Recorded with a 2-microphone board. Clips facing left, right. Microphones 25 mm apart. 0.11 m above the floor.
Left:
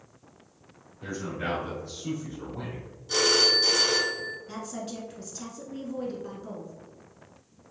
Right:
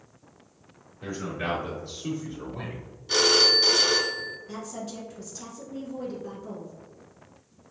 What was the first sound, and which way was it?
A man speaking, 20° right (ahead or behind).